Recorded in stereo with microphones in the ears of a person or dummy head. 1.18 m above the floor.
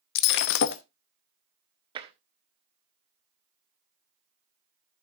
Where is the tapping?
25° right (ahead or behind), 1.1 m.